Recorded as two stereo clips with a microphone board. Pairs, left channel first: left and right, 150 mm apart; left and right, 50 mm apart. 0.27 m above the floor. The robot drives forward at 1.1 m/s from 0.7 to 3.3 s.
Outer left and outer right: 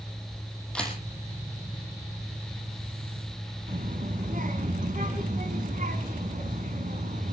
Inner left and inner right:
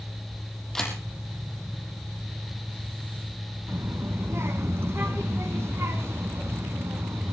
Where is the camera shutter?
5° left (ahead or behind), 4.5 m.